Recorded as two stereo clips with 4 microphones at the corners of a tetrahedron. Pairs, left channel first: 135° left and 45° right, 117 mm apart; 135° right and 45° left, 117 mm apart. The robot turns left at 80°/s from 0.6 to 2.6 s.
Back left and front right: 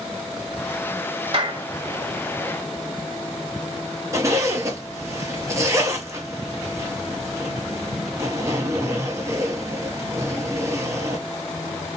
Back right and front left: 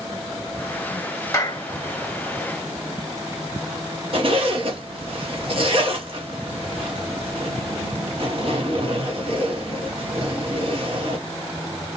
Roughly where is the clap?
Right.